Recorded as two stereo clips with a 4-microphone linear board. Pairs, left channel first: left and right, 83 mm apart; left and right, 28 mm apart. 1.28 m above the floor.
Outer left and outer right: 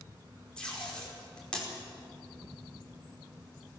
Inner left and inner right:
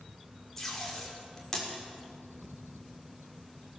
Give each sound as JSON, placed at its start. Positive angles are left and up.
{"t": 0.6, "sound": "tape being pulled", "side_deg": 10, "distance_m": 5.0}